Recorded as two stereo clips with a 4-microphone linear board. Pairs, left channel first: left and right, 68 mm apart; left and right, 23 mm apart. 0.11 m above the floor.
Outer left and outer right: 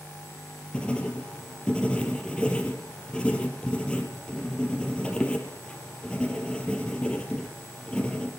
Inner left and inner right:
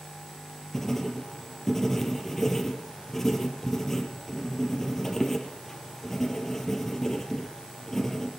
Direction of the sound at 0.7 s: 15° left (ahead or behind).